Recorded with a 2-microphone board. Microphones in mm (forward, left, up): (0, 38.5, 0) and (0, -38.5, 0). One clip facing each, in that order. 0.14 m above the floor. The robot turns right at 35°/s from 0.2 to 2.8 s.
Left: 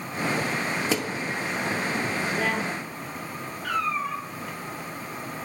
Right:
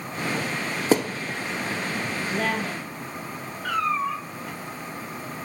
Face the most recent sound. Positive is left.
turn(degrees=-15)  # may be behind; listen again after turning